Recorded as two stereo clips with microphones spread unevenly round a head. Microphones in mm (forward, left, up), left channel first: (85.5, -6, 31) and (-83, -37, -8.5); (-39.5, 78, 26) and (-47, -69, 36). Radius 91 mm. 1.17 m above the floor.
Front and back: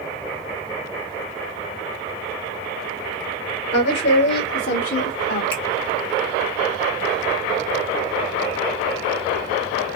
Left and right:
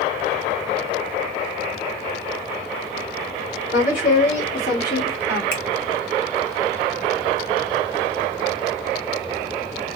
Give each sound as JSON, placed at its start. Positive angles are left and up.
{"t": 3.7, "sound": "a woman speaking", "azimuth_deg": 40, "distance_m": 2.5}
{"t": 5.5, "sound": "a finger snap", "azimuth_deg": 95, "distance_m": 1.8}